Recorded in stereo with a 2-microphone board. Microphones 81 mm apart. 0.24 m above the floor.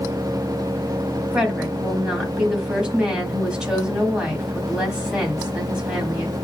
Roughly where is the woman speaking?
Centre.